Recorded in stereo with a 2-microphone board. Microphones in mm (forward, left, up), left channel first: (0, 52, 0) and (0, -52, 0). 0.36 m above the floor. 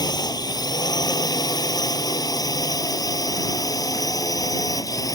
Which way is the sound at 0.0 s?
40° left (ahead or behind).